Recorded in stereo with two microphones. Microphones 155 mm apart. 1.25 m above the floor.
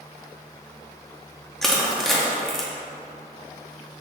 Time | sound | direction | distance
1.6 | crushing | centre (ahead or behind) | 0.7 m